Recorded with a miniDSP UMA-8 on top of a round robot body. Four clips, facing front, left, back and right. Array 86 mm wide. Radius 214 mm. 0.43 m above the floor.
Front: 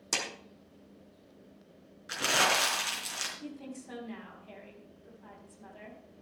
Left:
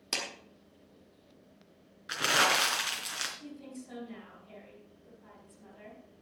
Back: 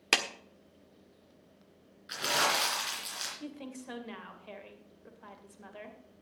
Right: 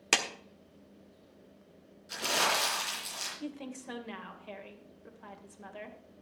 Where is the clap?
140° right, 1.5 m.